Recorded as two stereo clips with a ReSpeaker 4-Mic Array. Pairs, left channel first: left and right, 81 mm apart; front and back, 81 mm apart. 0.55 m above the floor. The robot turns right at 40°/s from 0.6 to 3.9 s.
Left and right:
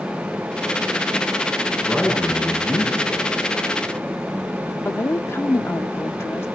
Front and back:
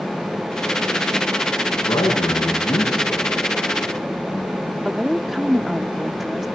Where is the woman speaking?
95° left, 1.1 m.